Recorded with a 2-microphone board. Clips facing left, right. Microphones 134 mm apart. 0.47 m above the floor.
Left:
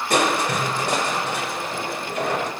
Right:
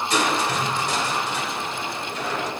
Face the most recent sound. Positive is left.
turn(degrees=60)  # may be behind; listen again after turning